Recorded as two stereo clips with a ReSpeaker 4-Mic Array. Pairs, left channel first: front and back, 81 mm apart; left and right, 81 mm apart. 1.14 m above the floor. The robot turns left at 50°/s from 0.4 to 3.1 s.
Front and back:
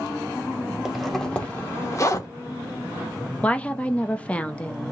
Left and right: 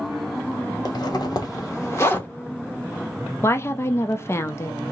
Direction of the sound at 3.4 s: 60° left.